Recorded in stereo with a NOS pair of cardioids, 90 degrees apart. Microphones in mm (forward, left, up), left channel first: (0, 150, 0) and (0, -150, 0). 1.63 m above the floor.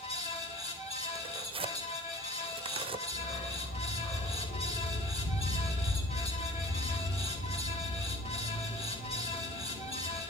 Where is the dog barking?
35° left, 6 m.